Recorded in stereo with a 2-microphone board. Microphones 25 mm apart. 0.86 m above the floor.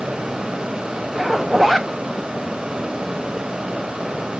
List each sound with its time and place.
1.1 s a zipper: 5° right (ahead or behind), 0.6 m